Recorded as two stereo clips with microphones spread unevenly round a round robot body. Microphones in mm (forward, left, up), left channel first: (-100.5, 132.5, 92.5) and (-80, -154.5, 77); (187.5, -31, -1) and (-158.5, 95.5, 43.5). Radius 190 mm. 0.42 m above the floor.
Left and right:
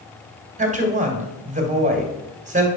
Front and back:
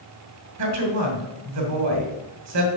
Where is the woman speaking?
150° right, 2.5 m.